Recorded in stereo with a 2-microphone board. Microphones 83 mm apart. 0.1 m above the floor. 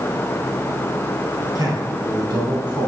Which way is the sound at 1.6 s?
50° right (ahead or behind).